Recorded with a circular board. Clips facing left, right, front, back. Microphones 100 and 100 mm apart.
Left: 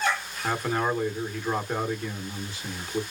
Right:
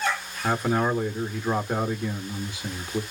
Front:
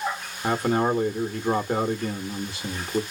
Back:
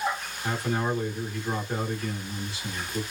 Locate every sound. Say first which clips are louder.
0.4 s a man speaking: right 3 dB, front 6 dB; 15° right, 1.3 m